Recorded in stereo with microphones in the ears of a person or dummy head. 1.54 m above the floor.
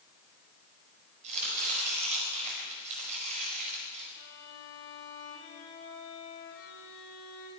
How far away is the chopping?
About 4.5 m.